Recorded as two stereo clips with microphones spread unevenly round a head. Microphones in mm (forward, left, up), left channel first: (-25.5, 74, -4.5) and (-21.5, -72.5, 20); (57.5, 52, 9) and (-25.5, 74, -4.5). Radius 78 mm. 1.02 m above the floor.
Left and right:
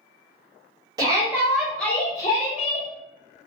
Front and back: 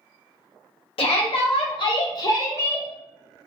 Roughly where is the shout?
Ahead.